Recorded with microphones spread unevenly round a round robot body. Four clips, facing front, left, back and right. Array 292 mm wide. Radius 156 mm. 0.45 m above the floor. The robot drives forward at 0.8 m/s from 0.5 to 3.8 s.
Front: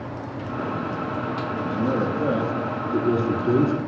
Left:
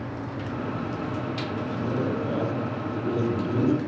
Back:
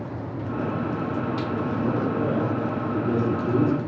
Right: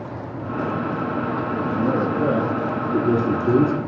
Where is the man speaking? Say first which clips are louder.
Right 6 dB, front 4 dB; 55° right, 8 m; by 3.8 s 65° right, 7 m.